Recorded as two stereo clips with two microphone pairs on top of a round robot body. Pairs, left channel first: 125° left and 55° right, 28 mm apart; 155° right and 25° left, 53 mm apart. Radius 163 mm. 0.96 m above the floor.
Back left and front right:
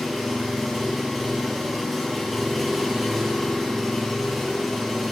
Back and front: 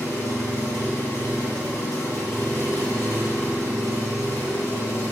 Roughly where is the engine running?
Behind right.